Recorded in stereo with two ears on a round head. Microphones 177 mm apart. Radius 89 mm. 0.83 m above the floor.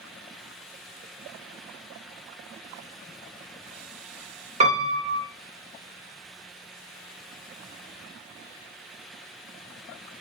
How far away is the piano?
About 1.0 m.